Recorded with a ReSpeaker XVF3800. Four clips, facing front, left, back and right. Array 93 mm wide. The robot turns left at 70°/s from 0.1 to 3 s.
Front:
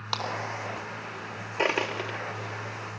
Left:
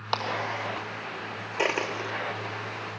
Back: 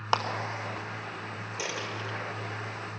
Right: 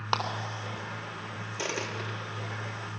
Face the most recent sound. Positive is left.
turn(degrees=-50)